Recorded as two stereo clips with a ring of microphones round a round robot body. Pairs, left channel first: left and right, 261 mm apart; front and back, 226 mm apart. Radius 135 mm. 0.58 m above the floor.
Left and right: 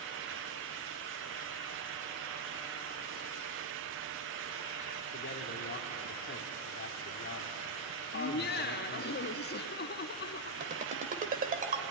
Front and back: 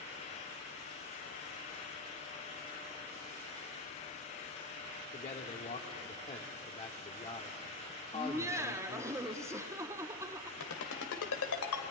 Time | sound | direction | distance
5.1 | a man speaking | 55° left | 1.5 m
8.1 | laughter | 110° left | 1.1 m
10.6 | a ringtone | 30° right | 1.8 m